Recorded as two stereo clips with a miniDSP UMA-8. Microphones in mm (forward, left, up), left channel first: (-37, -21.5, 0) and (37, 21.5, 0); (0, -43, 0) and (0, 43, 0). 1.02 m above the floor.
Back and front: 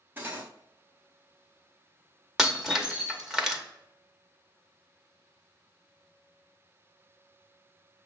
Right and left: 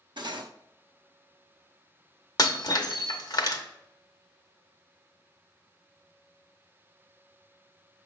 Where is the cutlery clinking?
95° left, 0.7 m.